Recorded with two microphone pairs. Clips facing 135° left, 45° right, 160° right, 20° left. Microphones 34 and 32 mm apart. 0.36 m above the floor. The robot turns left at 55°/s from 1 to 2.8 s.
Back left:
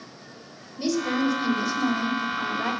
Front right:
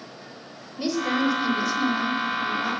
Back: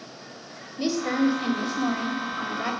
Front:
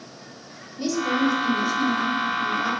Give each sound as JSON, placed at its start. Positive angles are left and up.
{"t": 0.8, "sound": "a woman speaking", "azimuth_deg": -105, "distance_m": 1.4}